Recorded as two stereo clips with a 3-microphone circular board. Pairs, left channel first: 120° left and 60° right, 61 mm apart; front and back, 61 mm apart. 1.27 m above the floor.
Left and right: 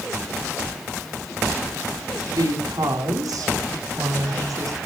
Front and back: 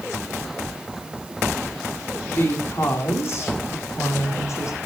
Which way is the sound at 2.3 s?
55° right.